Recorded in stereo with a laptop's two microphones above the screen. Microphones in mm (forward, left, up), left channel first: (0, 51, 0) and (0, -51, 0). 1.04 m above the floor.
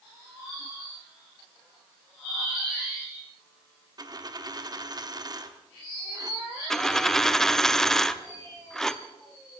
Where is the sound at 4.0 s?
40° right (ahead or behind), 0.9 m.